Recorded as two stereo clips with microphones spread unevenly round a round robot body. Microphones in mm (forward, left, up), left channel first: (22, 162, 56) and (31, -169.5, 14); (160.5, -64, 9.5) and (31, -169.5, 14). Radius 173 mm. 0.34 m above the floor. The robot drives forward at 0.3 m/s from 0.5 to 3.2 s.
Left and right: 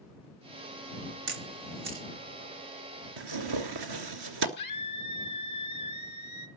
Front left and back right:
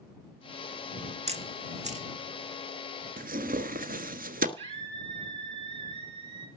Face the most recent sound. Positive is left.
turn(degrees=155)